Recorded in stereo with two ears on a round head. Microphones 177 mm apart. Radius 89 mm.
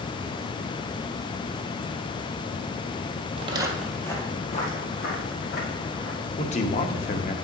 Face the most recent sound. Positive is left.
turn(degrees=35)  # may be behind; listen again after turning